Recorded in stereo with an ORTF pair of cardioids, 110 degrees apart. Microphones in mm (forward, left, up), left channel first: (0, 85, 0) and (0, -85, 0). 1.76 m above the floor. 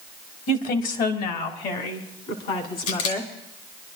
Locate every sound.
0.5 s a woman speaking: 55° left, 1.7 m; by 3.3 s 80° left, 3.5 m
2.9 s a camera shutter: 60° left, 3 m